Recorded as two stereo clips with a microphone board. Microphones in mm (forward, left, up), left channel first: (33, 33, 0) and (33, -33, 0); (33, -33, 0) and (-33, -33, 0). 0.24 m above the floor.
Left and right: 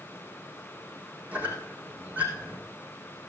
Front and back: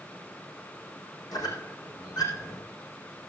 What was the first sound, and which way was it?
A squeak, 20° right.